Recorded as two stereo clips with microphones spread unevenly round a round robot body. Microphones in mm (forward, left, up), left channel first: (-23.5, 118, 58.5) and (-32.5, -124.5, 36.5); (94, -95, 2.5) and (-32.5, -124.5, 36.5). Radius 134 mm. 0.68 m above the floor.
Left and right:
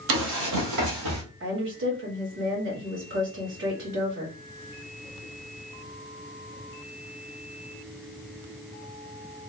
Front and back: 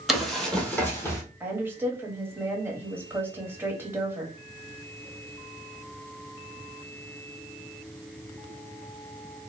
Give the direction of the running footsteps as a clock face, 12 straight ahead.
3 o'clock.